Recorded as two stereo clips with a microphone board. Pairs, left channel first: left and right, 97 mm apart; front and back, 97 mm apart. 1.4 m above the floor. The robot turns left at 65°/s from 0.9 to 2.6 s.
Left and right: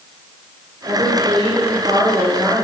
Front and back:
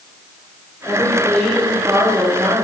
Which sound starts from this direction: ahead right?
A woman speaking, at 0.8 s.